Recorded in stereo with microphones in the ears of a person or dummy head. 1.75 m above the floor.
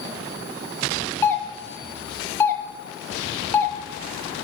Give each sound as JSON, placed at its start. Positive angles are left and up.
{"t": 1.2, "sound": "a doorbell", "side_deg": 5, "distance_m": 0.5}